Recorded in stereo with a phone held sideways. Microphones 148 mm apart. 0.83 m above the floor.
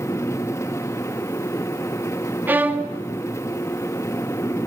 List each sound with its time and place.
0.0 s a fan: 20° left (ahead or behind), 0.7 m
2.5 s a violin: 15° right (ahead or behind), 1.1 m